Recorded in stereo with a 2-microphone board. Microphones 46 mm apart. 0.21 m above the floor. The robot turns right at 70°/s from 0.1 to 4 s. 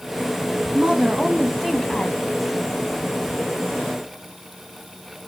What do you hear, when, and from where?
0.7 s a woman speaking: 50° right, 1.3 m; by 2.2 s 50° left, 1.3 m